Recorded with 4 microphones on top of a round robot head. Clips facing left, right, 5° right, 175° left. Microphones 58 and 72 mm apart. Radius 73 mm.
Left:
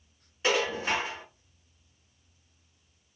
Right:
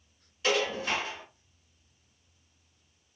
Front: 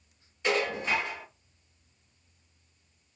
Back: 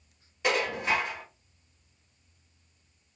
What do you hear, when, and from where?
0.4 s dishes clattering: 155° left, 4 m